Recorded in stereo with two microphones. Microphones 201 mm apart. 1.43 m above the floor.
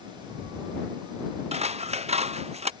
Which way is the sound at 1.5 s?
30° right (ahead or behind).